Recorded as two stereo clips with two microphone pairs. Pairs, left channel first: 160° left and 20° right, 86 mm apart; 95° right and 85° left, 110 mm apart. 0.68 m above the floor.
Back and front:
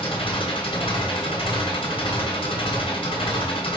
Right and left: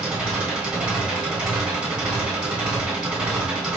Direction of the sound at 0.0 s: 165° left.